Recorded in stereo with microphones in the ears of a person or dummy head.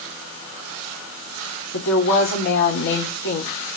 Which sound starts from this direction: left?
A woman speaking, at 1.7 s.